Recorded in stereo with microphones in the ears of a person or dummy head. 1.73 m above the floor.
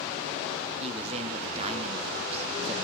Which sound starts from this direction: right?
A man speaking, at 0.8 s.